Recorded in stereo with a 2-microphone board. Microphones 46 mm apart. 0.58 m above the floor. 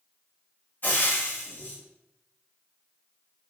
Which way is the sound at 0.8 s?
40° left (ahead or behind).